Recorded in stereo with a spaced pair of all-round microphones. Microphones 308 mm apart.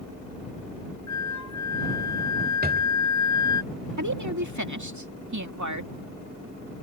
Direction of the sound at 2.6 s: 30° right (ahead or behind).